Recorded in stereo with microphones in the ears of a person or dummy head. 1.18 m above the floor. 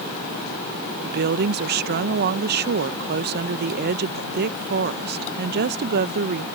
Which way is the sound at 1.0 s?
50° right (ahead or behind).